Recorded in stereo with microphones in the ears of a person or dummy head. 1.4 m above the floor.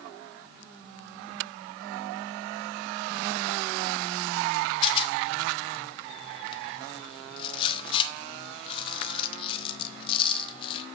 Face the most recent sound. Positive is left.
turn(degrees=30)  # may be behind; listen again after turning